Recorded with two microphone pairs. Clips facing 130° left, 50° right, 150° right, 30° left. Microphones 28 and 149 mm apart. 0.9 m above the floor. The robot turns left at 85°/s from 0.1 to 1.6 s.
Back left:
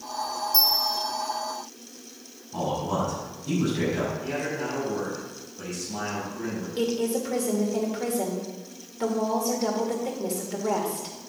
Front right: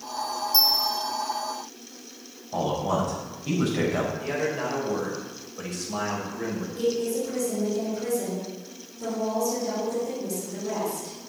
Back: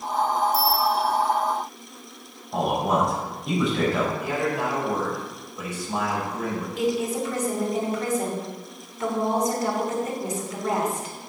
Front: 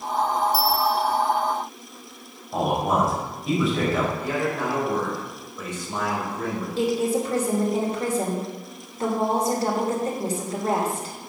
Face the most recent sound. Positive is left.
turn(degrees=85)